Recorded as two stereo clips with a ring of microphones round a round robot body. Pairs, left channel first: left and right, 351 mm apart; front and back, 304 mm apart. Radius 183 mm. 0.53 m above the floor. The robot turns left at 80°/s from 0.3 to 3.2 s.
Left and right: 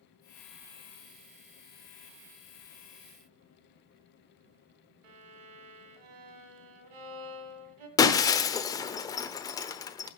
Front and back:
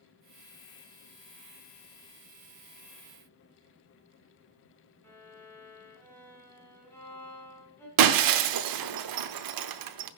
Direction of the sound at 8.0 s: 170° left.